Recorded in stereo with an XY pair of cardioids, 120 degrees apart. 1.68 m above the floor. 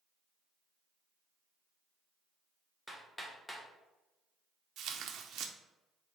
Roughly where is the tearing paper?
Ahead right.